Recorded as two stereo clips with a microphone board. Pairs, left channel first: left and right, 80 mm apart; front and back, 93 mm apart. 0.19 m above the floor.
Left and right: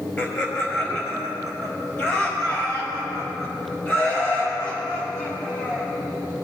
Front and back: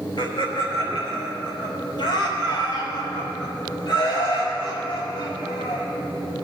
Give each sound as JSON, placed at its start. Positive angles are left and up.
{"t": 0.2, "sound": "laughter", "azimuth_deg": 30, "distance_m": 3.5}